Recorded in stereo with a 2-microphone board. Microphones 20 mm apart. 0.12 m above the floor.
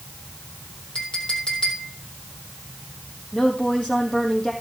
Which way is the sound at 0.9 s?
55° left (ahead or behind).